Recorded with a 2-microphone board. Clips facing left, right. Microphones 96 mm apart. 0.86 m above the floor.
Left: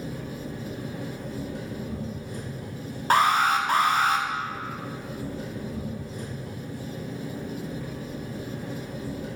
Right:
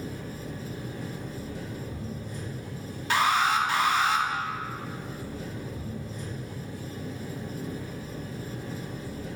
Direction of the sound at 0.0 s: 80° left.